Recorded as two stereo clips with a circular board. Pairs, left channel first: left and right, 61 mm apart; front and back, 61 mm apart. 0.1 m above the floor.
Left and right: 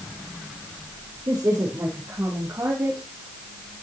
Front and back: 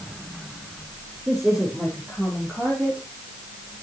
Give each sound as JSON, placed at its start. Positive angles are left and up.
{"t": 1.3, "sound": "a woman speaking", "azimuth_deg": -105, "distance_m": 3.5}